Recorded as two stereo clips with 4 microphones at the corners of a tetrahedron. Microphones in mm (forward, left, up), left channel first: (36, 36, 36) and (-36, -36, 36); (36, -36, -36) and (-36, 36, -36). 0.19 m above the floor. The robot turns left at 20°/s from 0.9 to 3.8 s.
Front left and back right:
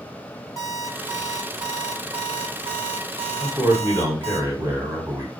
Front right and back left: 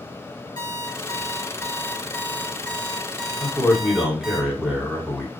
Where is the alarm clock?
80° right, 1.1 m; by 4.4 s 140° right, 1.1 m.